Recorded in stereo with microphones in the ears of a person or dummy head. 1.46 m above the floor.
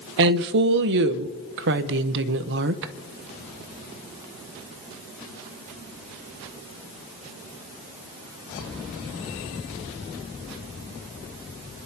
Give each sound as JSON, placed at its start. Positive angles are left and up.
{"t": 0.2, "sound": "a woman speaking", "side_deg": -60, "distance_m": 0.8}